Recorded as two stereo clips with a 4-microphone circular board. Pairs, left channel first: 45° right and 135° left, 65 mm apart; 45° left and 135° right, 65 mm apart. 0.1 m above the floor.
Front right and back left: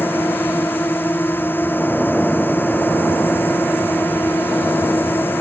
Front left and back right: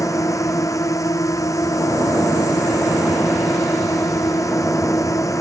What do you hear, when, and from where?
0.0 s a drone: 15° left